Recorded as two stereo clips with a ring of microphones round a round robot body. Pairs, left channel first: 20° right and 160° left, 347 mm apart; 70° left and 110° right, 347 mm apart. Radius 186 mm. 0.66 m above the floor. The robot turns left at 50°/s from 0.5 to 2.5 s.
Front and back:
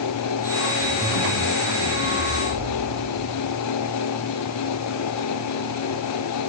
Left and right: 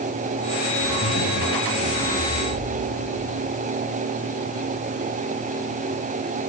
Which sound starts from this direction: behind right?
A zipper, at 0.8 s.